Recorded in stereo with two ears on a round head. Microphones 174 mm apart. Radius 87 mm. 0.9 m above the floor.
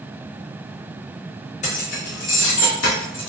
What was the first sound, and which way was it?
Keys jangling, 35° left (ahead or behind).